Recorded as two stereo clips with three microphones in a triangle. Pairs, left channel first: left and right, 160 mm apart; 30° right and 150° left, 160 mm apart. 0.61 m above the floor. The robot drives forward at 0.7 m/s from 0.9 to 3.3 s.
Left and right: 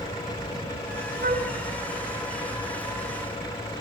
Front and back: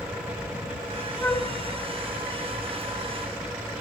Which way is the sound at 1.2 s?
110° right.